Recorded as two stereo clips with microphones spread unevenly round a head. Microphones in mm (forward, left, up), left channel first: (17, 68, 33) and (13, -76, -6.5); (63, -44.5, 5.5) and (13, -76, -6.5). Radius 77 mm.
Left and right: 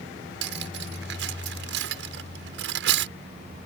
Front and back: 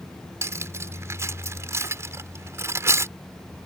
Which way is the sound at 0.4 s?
100° right.